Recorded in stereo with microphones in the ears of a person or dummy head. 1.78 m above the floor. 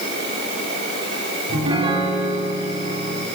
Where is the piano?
30° right (ahead or behind), 4.5 m.